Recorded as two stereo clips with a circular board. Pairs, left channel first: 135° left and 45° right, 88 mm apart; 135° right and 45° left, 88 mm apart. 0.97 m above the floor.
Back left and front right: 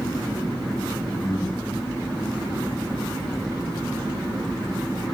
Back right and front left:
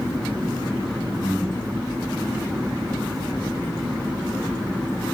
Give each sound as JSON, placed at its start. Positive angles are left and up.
{"t": 1.2, "sound": "breathing", "azimuth_deg": 180, "distance_m": 5.5}